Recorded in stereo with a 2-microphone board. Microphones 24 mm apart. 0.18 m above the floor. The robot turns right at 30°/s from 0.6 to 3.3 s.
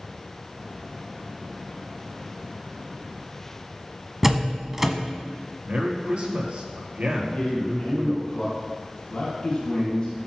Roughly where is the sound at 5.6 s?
Right.